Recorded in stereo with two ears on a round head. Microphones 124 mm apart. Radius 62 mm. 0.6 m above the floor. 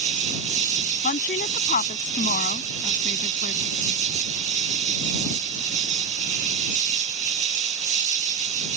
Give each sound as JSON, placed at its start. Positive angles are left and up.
{"t": 0.0, "sound": "an insect", "side_deg": -55}
{"t": 1.0, "sound": "a woman speaking", "side_deg": 60}